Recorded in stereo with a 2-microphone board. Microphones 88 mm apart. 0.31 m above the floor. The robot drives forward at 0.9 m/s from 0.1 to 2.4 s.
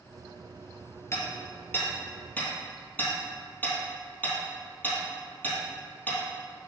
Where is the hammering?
30° left (ahead or behind), 2 m; by 6.2 s 20° left (ahead or behind), 3 m.